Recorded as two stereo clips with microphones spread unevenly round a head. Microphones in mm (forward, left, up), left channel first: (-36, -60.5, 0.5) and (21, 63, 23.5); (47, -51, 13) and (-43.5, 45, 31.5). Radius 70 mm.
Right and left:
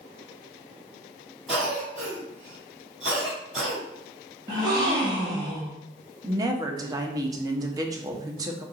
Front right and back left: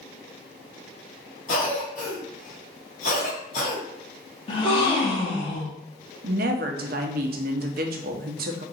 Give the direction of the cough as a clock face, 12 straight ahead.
1 o'clock.